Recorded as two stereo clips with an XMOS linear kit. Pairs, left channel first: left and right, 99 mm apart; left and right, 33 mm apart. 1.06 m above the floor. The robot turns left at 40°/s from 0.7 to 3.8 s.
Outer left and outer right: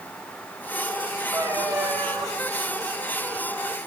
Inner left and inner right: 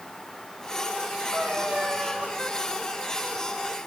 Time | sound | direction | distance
1.3 | a cat meowing | 30° right | 6.5 m